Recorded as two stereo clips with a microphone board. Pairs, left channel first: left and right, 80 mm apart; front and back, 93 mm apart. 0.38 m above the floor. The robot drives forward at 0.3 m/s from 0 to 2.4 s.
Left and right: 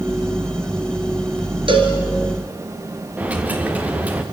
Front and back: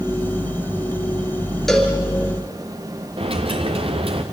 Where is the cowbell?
85° right, 3.5 m; by 2.0 s 90° right, 3.5 m.